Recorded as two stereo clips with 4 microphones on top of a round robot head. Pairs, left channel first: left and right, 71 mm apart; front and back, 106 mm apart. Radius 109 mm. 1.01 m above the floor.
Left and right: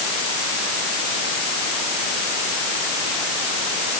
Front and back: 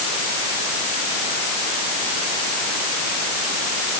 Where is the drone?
I don't hear a drone.